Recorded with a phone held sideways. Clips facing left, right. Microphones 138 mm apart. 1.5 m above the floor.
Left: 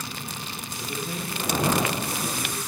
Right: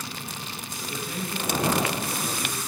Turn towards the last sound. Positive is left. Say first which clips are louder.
# left 1 dB
turn(degrees=40)  # may be behind; listen again after turning